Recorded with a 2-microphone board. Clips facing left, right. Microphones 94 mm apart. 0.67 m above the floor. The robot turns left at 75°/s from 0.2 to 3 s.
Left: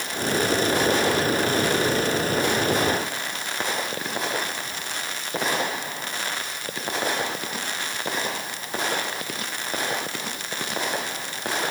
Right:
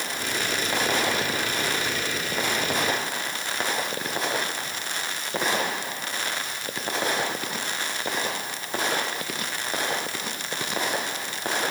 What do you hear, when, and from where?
Only background noise.